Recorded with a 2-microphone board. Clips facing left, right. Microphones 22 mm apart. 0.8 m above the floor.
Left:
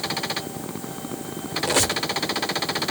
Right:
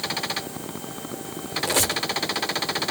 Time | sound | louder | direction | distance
1.6 | a squeak | left 2 dB | 15° left (ahead or behind) | 0.8 m